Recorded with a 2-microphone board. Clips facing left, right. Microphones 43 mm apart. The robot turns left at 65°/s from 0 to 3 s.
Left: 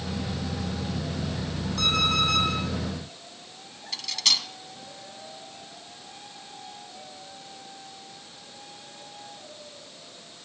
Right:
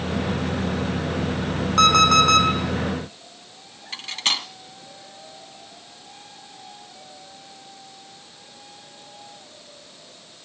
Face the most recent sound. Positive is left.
turn(degrees=-40)  # may be behind; listen again after turning